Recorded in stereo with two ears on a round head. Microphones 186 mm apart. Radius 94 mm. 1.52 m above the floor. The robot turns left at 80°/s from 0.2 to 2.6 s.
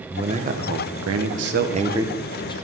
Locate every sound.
0.1 s a man speaking: 20° right, 1.0 m; by 2.5 s 155° left, 1.0 m